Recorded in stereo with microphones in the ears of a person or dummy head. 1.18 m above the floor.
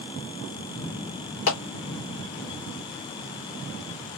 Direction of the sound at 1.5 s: 70° left (ahead or behind).